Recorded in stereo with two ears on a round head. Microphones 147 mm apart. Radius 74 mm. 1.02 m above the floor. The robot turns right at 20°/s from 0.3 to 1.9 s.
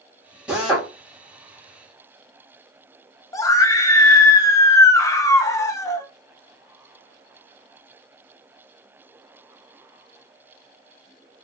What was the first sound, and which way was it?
A drill, 10° right (ahead or behind).